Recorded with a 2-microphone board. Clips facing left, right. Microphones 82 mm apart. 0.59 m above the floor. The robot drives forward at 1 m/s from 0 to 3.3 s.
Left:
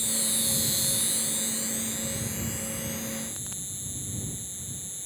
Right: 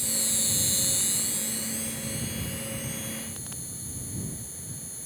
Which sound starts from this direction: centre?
An insect, at 0.0 s.